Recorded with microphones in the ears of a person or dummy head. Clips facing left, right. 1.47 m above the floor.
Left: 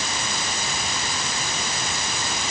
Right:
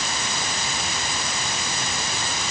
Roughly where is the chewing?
No chewing in this recording.